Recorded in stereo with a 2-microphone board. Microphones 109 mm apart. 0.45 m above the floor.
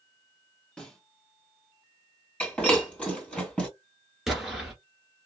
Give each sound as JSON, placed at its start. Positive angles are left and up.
{"t": 0.8, "sound": "a snare drum", "side_deg": 10, "distance_m": 2.5}
{"t": 2.4, "sound": "breaking glass", "side_deg": 10, "distance_m": 2.5}
{"t": 4.3, "sound": "an explosion", "side_deg": -5, "distance_m": 1.2}